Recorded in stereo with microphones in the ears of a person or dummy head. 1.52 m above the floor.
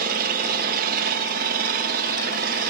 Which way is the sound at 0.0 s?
50° right (ahead or behind).